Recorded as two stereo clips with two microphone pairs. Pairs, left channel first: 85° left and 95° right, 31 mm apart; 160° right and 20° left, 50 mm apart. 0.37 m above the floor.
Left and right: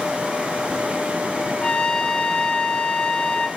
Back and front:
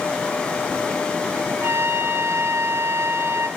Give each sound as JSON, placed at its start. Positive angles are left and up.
{"t": 1.6, "sound": "a trumpet", "azimuth_deg": 20, "distance_m": 2.0}